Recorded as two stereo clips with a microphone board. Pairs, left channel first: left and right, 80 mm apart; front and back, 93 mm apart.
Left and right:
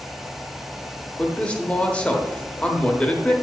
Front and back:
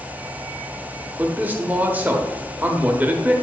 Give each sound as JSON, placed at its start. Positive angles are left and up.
{"t": 1.2, "sound": "a man speaking", "azimuth_deg": 140, "distance_m": 1.1}